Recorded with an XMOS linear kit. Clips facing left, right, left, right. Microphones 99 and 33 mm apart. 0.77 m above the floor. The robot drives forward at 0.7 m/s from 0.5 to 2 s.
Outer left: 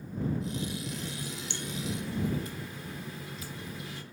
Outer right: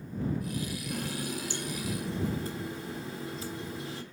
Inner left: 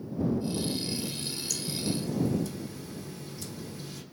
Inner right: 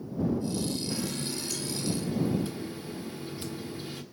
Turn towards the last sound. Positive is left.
turn(degrees=-35)  # may be behind; listen again after turning